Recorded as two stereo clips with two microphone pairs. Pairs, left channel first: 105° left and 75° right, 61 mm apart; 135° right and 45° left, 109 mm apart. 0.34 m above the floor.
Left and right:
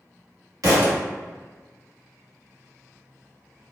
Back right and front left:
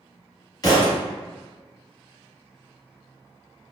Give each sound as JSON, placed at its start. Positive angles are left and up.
{"t": 0.6, "sound": "a thud", "azimuth_deg": -80, "distance_m": 1.5}